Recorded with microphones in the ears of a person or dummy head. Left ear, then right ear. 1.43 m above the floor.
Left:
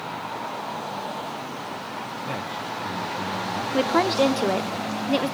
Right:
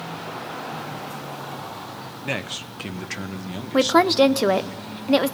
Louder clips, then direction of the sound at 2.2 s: Right 4 dB; 70° right (ahead or behind).